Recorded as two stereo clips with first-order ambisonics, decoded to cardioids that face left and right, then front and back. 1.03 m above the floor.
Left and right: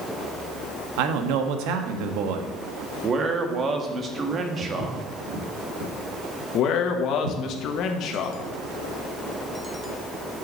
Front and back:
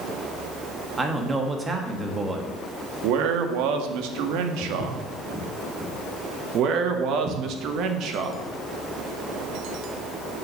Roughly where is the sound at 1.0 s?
Right.